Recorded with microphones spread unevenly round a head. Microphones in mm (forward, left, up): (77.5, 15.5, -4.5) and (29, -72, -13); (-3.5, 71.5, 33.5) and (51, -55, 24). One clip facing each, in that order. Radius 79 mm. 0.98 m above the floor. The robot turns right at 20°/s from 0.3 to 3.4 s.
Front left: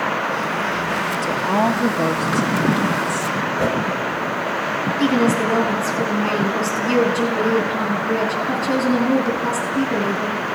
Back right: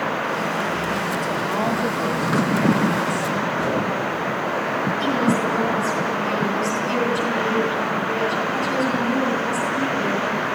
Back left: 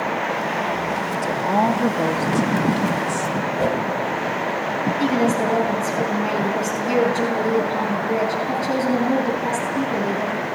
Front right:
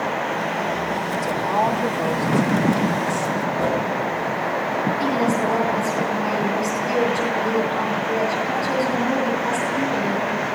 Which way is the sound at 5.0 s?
50° left.